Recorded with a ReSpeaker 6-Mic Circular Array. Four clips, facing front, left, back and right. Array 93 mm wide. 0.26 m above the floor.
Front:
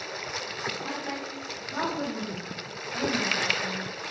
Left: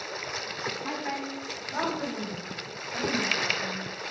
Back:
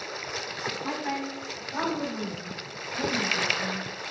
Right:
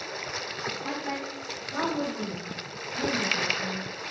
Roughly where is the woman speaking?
Behind left.